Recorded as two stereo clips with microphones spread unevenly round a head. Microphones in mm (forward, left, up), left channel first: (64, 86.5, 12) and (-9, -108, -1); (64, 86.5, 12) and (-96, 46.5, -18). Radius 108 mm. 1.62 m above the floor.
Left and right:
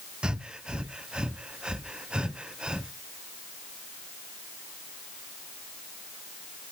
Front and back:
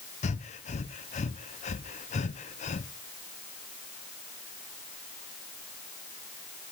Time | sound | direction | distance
0.2 | breathing | 25° right | 0.5 m